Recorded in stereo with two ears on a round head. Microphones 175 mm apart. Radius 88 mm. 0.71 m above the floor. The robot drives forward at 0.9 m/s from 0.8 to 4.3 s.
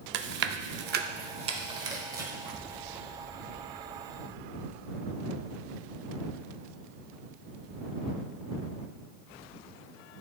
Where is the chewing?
65° right (ahead or behind), 0.6 m; by 3.0 s 15° right (ahead or behind), 2.5 m.